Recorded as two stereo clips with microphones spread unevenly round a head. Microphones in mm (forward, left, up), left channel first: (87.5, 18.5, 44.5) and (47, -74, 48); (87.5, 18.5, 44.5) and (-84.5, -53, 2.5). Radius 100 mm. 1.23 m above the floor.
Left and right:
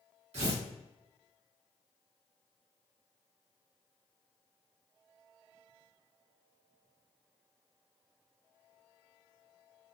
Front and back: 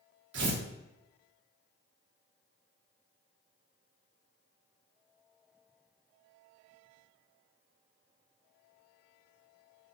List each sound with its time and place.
0.3 s tearing paper: 140° right, 2 m